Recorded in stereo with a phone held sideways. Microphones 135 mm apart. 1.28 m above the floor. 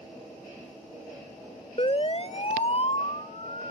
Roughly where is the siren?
Left.